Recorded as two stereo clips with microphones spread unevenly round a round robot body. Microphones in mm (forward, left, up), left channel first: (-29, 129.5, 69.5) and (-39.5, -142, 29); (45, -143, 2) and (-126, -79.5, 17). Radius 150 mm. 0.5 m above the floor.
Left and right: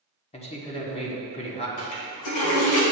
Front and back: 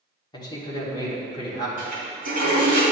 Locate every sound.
0.3 s a man speaking: 20° left, 1.4 m
1.8 s a toilet flushing: 100° left, 2.0 m